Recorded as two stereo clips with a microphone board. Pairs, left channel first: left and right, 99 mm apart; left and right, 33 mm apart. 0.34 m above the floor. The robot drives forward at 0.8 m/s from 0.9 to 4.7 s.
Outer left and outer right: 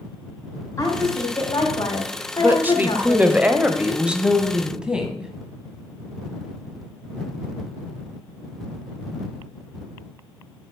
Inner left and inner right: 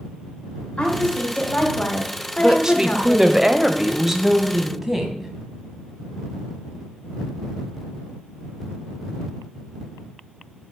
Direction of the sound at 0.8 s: 30° left (ahead or behind).